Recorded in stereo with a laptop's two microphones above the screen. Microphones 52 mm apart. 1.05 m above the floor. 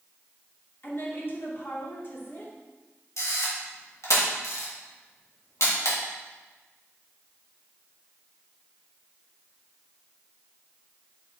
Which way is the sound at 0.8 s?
45° left (ahead or behind).